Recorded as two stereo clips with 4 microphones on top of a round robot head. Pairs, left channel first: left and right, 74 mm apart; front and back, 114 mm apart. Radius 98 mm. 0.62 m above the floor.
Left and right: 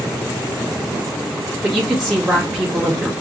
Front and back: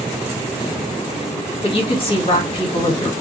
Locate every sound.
1.6 s a woman speaking: 10° right, 1.5 m